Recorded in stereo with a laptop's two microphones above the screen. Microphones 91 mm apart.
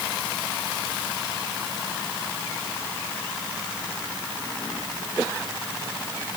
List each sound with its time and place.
Only background noise.